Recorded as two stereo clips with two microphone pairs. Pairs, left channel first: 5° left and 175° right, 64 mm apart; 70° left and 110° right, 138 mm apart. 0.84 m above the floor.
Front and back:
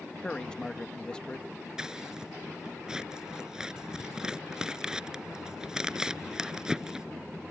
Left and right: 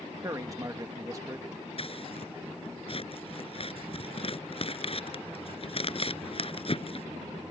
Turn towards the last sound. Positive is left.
turn(degrees=110)